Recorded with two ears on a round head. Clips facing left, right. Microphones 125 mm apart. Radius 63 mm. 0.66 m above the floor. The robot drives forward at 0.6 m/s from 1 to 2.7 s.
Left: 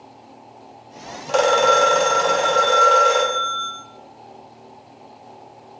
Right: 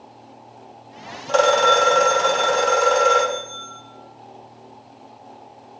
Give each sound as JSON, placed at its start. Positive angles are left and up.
{"t": 1.3, "sound": "a phone ringing", "side_deg": 5, "distance_m": 0.5}